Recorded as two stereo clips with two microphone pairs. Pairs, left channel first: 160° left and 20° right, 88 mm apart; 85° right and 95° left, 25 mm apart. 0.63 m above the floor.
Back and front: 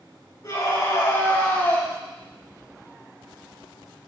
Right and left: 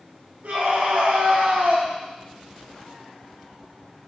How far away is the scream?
About 4 m.